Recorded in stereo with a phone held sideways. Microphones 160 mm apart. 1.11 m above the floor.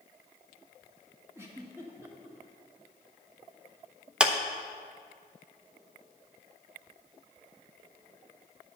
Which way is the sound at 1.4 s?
15° right (ahead or behind).